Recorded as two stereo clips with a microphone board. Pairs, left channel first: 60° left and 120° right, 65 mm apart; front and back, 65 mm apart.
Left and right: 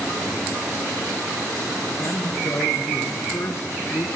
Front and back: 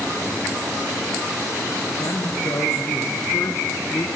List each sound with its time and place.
2.0 s a man speaking: 20° left, 3.5 m; by 4.1 s 25° left, 2.5 m